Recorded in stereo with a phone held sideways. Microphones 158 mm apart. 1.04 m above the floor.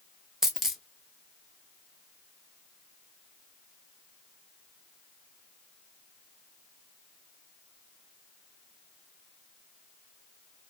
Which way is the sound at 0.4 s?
Centre (ahead or behind).